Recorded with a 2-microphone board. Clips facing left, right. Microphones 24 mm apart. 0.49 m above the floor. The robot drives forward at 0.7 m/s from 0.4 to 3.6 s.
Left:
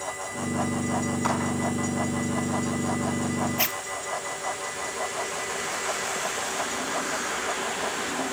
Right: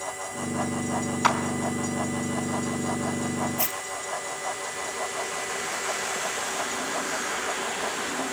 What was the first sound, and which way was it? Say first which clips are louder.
A clap: right 6 dB; 45° right (ahead or behind).